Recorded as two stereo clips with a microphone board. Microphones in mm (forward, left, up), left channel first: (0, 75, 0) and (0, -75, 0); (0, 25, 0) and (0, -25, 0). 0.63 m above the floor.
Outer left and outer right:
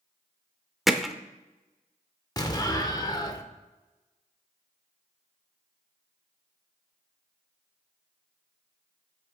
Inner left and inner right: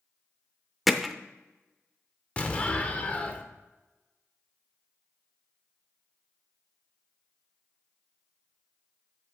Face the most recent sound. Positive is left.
turn(degrees=25)  # may be behind; listen again after turning